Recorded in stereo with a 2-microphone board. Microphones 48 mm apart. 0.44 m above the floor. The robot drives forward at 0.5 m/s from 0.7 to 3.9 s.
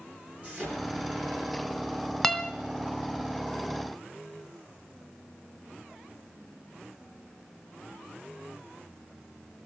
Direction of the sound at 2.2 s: 5° left (ahead or behind).